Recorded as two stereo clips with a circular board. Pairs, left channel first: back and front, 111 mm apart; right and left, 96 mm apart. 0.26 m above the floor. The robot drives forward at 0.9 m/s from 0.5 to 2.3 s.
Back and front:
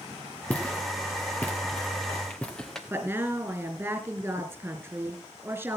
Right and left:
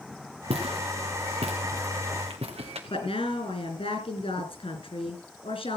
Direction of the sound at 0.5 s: 105° left.